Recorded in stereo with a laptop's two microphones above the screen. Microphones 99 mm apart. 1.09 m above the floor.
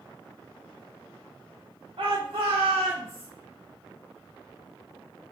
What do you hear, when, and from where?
2.0 s a shout: 60° right (ahead or behind), 0.5 m; by 3.3 s 80° right, 1.1 m